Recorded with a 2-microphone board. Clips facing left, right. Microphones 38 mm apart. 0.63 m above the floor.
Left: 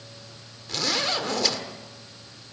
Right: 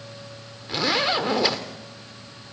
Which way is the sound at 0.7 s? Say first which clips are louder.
Right 4 dB; 20° right (ahead or behind).